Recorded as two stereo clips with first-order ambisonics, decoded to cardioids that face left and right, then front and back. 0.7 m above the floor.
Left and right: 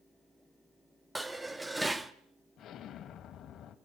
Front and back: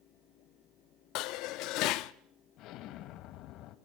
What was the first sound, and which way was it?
Dishes clattering, 10° right.